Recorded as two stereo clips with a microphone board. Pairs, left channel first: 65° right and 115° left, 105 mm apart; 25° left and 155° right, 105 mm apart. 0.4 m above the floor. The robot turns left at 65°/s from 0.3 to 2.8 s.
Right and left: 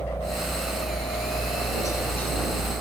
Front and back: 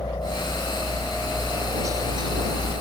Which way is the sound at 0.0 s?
10° right.